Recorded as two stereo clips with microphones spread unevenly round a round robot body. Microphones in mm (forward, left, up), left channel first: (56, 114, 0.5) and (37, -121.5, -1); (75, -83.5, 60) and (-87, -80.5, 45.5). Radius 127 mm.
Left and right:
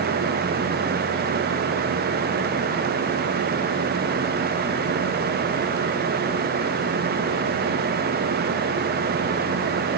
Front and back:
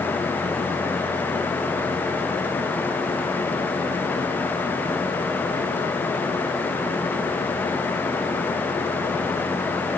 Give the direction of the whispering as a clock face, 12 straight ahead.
No whispering in this recording.